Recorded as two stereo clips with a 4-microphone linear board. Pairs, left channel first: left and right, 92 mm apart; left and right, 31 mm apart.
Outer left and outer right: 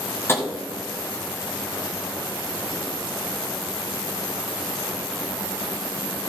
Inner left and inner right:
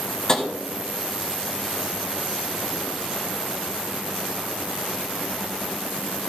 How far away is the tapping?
About 1.4 m.